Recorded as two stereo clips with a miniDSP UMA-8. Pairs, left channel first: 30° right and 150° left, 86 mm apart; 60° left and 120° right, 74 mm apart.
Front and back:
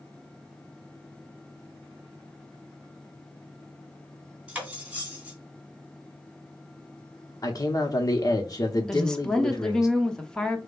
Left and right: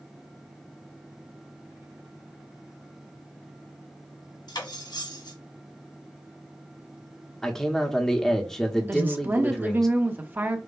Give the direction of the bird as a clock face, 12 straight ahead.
I don't hear a bird.